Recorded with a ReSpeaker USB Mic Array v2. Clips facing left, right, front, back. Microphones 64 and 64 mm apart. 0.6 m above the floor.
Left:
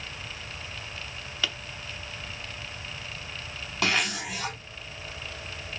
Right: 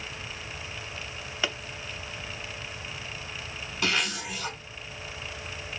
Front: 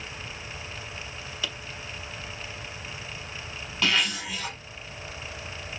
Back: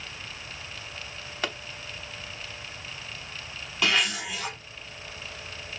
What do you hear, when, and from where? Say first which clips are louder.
1.4 s a pop: right 1 dB, back 4 dB; 155° right, 0.9 m
3.8 s a zipper: left 2 dB, back 1 dB; 100° left, 5 m